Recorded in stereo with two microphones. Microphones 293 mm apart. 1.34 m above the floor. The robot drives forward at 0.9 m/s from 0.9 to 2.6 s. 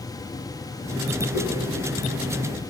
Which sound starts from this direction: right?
A whoosh, at 1.3 s.